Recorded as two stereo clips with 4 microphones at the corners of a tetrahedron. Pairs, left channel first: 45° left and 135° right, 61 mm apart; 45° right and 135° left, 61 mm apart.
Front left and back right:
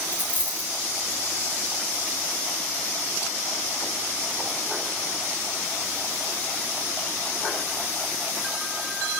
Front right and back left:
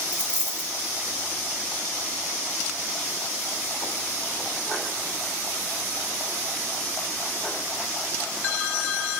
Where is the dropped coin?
70° left, 1.3 m.